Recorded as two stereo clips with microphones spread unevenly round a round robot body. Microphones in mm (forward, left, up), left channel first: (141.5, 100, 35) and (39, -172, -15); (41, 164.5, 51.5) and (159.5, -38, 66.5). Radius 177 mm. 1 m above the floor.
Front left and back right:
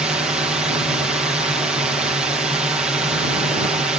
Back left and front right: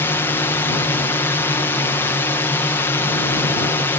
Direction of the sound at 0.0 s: 175° right.